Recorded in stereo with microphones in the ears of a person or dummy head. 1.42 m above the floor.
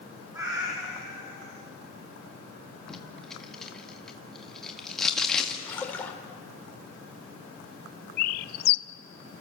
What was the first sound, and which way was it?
A cat meowing, 15° right (ahead or behind).